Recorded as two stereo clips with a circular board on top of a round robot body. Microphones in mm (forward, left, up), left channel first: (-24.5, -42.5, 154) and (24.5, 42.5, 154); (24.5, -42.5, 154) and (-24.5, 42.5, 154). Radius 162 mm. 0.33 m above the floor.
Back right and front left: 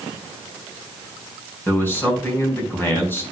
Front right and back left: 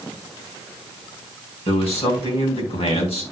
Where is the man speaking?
50° right, 4 m.